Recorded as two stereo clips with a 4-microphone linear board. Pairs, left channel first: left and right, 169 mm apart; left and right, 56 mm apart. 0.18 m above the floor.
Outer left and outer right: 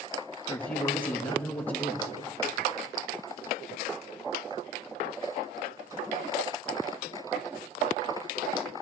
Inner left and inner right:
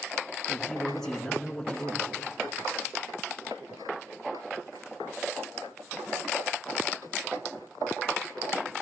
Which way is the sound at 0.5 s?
10° left (ahead or behind).